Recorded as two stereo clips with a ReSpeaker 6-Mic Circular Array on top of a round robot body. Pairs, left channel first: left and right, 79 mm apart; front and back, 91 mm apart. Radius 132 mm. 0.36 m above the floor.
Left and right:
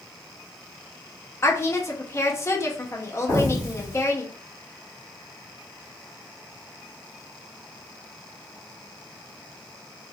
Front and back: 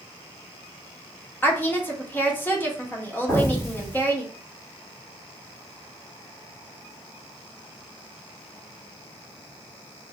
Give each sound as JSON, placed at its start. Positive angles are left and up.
{"t": 1.4, "sound": "a woman speaking", "azimuth_deg": 55, "distance_m": 1.1}
{"t": 3.3, "sound": "an explosion", "azimuth_deg": 55, "distance_m": 2.0}